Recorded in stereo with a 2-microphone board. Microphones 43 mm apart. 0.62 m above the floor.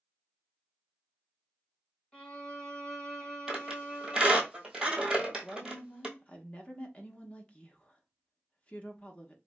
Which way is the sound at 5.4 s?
25° left (ahead or behind).